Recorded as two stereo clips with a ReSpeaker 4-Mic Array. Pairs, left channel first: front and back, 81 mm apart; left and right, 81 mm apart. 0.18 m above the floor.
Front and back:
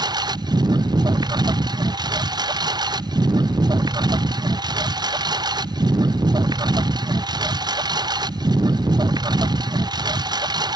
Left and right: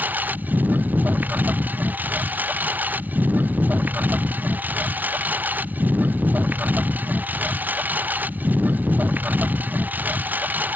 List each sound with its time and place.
0.0 s a lawn mower: 155° right